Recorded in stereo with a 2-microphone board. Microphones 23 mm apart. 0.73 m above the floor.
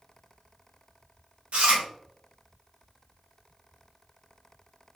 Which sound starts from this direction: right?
Chewing, at 1.5 s.